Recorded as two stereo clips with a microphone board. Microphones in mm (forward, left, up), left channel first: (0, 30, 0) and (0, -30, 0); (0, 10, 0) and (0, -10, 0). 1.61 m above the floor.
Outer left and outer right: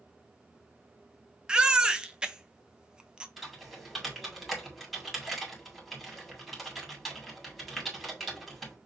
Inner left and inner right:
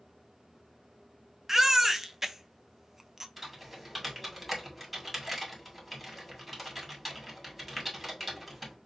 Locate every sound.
1.5 s a baby crying: 15° right (ahead or behind), 0.6 m
3.4 s typing on a keyboard: centre (ahead or behind), 2 m